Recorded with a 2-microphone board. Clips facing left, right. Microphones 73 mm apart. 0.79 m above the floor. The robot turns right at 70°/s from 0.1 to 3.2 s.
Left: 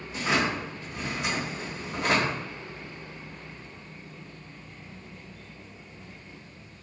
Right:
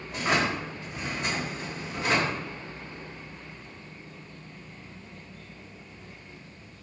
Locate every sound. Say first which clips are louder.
0.1 s a drawer: even; 75° right, 1.0 m; by 2.4 s 90° left, 1.0 m